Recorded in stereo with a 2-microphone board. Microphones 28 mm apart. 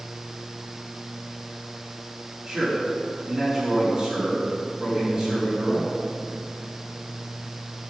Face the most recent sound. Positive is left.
turn(degrees=-15)  # may be behind; listen again after turning